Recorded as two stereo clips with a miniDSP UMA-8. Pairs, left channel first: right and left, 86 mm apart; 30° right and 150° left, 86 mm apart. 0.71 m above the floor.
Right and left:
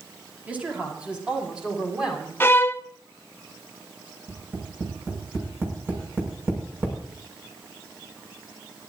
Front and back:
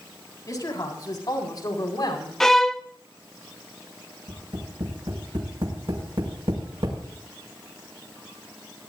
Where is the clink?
No clink in this recording.